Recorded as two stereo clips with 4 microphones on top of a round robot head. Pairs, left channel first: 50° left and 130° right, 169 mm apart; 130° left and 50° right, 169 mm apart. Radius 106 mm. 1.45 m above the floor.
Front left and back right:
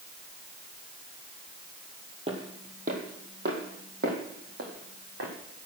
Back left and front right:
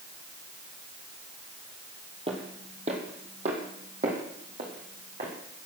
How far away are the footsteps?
About 1.6 m.